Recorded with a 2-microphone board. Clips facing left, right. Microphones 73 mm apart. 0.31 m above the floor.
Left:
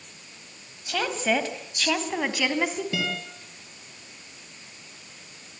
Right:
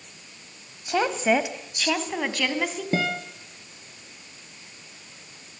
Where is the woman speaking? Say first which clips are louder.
Right 4 dB; 25° right (ahead or behind), 2 m; by 2.8 s 10° left (ahead or behind), 3 m.